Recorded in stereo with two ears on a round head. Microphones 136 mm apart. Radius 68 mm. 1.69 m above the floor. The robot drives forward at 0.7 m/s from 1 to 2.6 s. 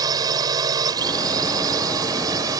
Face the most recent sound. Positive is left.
turn(degrees=-25)  # may be behind; listen again after turning